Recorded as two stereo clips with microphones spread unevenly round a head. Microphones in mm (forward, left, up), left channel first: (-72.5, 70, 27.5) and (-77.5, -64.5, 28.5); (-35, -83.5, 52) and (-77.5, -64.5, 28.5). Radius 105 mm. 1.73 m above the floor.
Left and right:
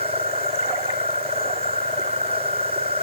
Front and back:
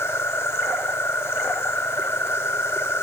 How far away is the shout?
I don't hear a shout.